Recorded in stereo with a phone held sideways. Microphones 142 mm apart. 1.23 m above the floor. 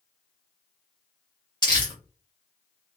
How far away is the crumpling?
About 1.4 m.